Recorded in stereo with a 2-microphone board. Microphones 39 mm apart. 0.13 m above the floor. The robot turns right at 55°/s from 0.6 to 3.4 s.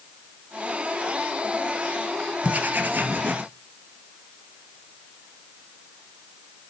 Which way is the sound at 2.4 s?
135° right.